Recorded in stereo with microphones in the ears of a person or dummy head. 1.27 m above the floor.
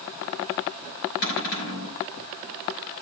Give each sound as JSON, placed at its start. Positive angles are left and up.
{"t": 1.2, "sound": "a cupboard door", "side_deg": 50, "distance_m": 5.0}